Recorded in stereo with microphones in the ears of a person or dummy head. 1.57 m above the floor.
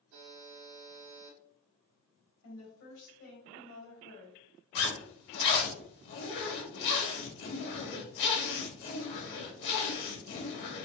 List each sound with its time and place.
0.1 s a buzzer: 65° right (ahead or behind), 1.1 m
2.4 s a woman speaking: 80° left, 2 m
4.8 s a zipper: 65° left (ahead or behind), 1.2 m